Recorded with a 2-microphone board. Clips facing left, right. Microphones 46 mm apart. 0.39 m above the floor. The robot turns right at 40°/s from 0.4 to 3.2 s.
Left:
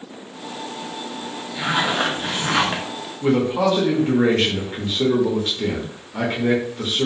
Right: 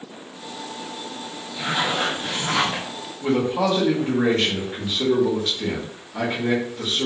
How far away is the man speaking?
About 0.8 m.